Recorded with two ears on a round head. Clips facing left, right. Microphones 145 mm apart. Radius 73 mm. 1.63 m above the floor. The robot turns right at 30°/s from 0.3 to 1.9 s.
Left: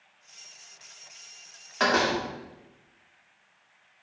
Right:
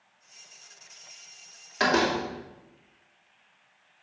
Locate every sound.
1.8 s a door slam: 15° right (ahead or behind), 2.5 m